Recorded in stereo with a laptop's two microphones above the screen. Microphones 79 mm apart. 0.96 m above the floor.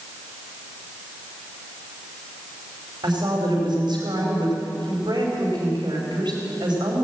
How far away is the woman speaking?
About 4 m.